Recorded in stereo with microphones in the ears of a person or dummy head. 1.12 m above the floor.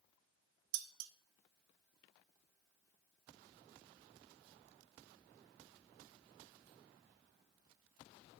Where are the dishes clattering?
70° right (ahead or behind), 0.8 m.